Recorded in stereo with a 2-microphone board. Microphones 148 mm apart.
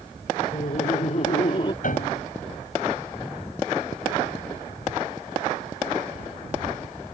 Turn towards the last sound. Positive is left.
turn(degrees=65)  # may be behind; listen again after turning